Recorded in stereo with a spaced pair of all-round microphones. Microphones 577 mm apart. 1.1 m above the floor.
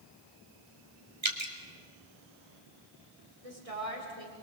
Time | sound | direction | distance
1.2 | dripping | 55° right (ahead or behind) | 2.5 m
3.4 | a woman speaking | 80° right | 3 m